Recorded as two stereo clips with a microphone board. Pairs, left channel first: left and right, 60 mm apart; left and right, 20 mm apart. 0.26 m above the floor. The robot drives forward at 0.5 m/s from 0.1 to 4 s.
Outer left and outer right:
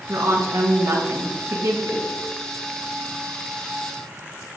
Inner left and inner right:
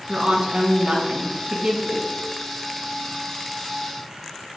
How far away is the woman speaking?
About 2.0 m.